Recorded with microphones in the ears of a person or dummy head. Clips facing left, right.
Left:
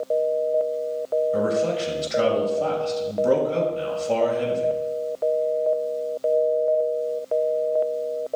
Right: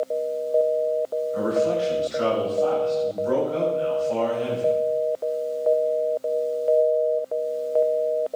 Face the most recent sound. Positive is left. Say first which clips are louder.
# even
turn(degrees=70)  # may be behind; listen again after turning